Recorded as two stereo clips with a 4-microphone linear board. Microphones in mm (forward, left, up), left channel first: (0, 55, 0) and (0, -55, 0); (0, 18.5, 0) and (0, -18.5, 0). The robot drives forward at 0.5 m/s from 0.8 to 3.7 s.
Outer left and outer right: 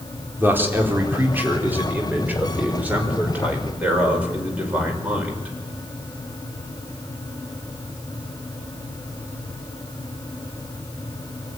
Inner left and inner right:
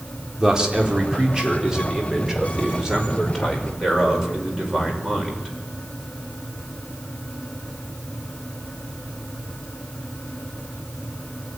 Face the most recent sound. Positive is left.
turn(degrees=-15)  # may be behind; listen again after turning